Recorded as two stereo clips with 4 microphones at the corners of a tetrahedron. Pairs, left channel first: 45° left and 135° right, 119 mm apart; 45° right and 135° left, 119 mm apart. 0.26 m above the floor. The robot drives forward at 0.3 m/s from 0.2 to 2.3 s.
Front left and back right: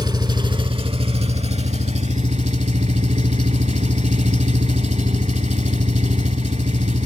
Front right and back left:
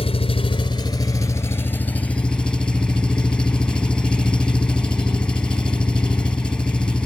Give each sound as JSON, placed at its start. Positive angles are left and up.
{"t": 0.0, "sound": "an engine running", "azimuth_deg": -85, "distance_m": 0.7}